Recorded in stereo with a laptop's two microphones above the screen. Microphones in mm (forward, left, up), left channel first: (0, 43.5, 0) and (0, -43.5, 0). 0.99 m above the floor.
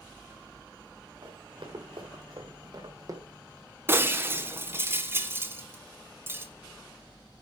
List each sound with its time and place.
1.2 s running footsteps: 75° right (ahead or behind), 4 m; by 3.2 s 35° right (ahead or behind), 2.5 m
3.9 s breaking glass: 25° right (ahead or behind), 1.5 m